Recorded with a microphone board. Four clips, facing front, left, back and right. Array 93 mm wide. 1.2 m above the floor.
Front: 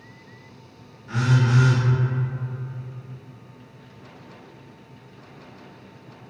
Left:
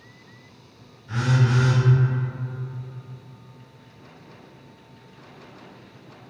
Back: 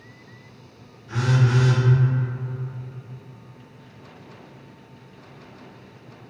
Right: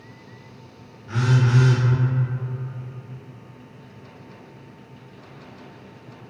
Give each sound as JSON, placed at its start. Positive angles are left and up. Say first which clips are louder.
{"t": 1.1, "sound": "a phone buzzing", "louder": "right 1 dB, even", "azimuth_deg": -35, "distance_m": 1.7}